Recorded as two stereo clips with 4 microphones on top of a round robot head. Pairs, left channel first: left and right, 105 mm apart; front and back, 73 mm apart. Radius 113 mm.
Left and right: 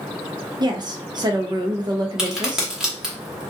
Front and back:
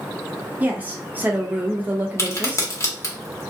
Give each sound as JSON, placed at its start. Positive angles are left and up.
{"t": 0.6, "sound": "a woman speaking", "azimuth_deg": -120, "distance_m": 0.7}
{"t": 2.2, "sound": "a crack", "azimuth_deg": -10, "distance_m": 1.3}